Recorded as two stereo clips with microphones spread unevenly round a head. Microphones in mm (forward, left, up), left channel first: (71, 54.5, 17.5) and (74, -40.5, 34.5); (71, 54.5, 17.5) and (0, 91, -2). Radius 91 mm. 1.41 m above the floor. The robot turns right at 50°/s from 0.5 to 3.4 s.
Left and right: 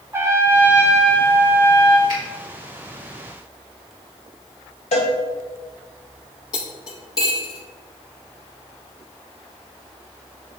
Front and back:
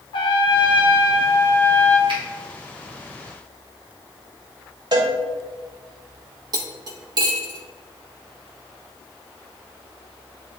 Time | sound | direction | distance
0.1 | a trumpet | 25° right | 1.0 m
2.1 | a finger snap | 155° left | 2.5 m
4.9 | a cowbell | 120° left | 1.1 m
6.5 | cutlery clinking | 150° left | 0.8 m